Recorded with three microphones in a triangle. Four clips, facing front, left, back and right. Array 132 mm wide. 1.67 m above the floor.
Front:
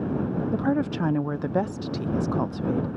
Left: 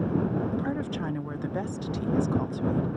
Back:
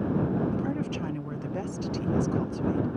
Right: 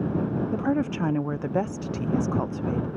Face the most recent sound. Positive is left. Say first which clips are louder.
# right 5 dB, front 6 dB
turn(degrees=-40)